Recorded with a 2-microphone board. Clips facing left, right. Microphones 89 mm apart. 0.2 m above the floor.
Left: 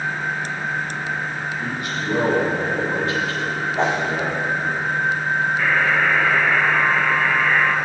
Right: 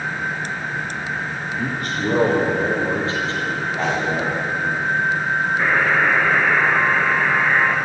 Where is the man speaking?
50° right (ahead or behind), 6.5 m; by 4.8 s 10° right (ahead or behind), 5 m.